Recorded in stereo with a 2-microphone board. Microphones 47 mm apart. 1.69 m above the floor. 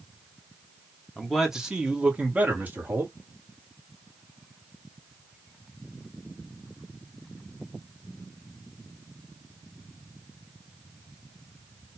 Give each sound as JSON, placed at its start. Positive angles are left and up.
{"t": 1.2, "sound": "a man speaking", "side_deg": 0, "distance_m": 1.1}